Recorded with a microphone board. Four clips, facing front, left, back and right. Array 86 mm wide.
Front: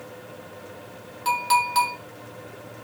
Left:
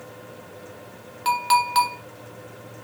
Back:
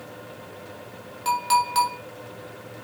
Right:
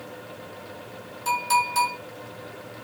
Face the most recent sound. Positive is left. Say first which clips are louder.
# left 3 dB, even
turn(degrees=95)